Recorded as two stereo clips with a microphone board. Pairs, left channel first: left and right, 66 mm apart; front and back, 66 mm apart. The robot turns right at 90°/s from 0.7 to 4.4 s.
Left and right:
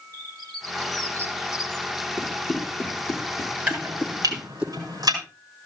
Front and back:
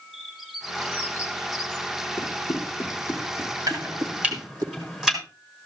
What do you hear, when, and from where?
0.1 s a bird: 90° right, 2.5 m; by 1.9 s 15° left, 2.5 m
2.2 s running footsteps: 20° right, 6 m; by 4.7 s 160° right, 3.5 m
3.7 s chopping: 165° right, 5.5 m; by 5.2 s 100° right, 5.5 m